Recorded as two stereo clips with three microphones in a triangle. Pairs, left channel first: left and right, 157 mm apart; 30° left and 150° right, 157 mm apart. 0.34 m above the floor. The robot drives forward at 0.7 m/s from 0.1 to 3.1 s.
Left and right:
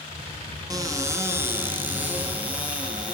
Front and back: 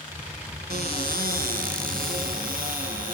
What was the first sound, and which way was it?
A cupboard door, 155° right.